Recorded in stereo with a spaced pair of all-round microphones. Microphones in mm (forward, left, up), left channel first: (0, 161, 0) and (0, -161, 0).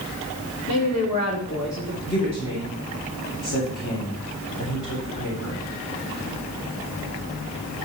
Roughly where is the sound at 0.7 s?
Left.